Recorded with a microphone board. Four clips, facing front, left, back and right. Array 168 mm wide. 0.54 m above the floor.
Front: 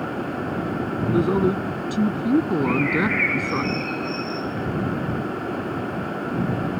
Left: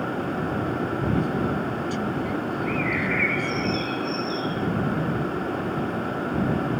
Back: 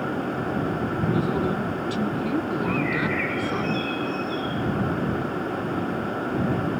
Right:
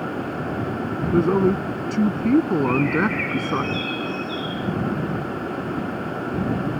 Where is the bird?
45° left.